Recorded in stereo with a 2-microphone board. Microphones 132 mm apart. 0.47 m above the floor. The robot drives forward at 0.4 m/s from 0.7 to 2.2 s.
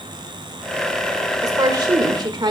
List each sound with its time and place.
1.4 s a woman speaking: 30° right (ahead or behind), 1.5 m; by 2.5 s 35° right (ahead or behind), 1.3 m